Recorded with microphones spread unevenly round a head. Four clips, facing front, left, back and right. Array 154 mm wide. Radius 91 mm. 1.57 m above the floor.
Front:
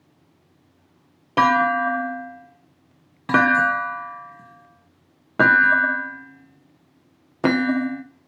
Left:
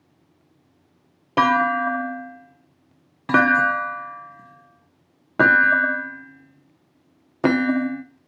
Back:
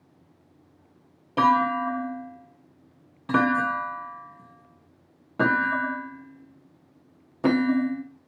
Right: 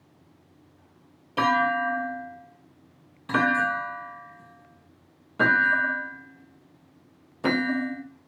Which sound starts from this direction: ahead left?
A clunk, at 1.4 s.